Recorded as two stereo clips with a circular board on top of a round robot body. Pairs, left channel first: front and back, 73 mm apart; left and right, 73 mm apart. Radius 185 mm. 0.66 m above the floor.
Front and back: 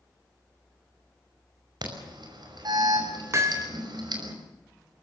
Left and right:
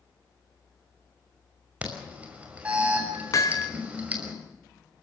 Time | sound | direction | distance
1.8 | an alarm | 160° right | 5.5 m
3.3 | hammering | 130° left | 3 m